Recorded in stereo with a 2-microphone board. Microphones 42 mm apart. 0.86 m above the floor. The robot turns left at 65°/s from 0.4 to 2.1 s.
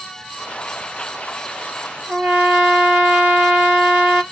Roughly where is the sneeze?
I don't hear a sneeze.